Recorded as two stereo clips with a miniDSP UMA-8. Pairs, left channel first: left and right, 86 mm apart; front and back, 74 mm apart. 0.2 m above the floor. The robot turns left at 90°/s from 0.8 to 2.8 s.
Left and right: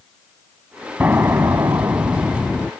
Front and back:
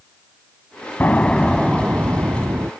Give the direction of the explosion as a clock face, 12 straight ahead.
1 o'clock.